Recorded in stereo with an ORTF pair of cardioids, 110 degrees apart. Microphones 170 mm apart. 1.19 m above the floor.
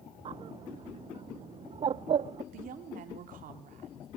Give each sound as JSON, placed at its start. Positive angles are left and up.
{"t": 0.2, "sound": "a bird", "azimuth_deg": -35, "distance_m": 0.5}
{"t": 2.5, "sound": "a woman speaking", "azimuth_deg": -60, "distance_m": 3.0}